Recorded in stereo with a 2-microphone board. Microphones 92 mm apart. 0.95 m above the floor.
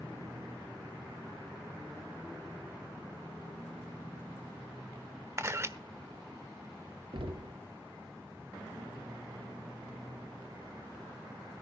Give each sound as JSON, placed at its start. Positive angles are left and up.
{"t": 5.4, "sound": "a camera shutter", "side_deg": -30, "distance_m": 1.2}
{"t": 7.1, "sound": "knocking", "side_deg": -65, "distance_m": 1.2}